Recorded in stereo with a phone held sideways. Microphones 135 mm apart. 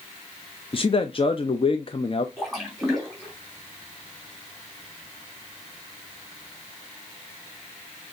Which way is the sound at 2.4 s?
Centre (ahead or behind).